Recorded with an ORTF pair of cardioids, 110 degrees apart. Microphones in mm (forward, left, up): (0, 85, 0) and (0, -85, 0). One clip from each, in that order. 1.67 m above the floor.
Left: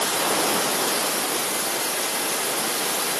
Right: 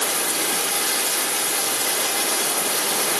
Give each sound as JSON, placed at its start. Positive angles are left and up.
{"t": 0.0, "sound": "running water", "azimuth_deg": -30, "distance_m": 1.8}